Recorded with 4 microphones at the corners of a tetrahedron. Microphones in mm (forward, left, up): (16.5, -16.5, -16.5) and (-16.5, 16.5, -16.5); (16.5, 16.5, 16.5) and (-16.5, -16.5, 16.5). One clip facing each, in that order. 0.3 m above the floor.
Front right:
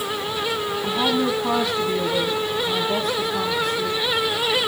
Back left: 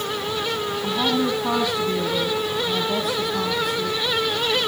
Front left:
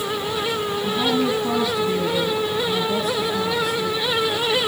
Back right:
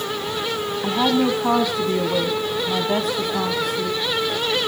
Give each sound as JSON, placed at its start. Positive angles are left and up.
{"t": 0.8, "sound": "a woman speaking", "azimuth_deg": -130, "distance_m": 2.0}